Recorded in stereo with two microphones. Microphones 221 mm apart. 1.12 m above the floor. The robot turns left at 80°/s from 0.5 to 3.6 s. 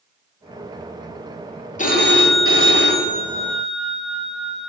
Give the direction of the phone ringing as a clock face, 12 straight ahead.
7 o'clock.